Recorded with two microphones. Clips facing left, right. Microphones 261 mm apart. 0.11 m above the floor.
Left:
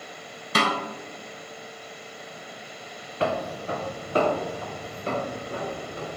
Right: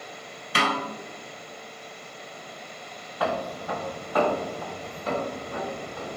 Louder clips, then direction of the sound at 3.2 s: Left 2 dB; 30° left (ahead or behind).